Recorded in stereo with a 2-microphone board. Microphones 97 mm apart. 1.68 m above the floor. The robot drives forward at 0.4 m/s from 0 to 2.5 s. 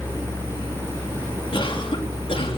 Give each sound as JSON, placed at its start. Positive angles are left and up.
{"t": 1.5, "sound": "a cough", "side_deg": 65, "distance_m": 4.0}